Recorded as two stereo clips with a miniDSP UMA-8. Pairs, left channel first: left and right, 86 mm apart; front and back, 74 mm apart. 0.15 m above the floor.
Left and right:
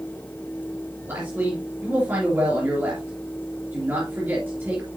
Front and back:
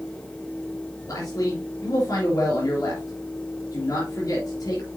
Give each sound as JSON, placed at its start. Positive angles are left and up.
{"t": 1.1, "sound": "a man speaking", "azimuth_deg": -25, "distance_m": 3.0}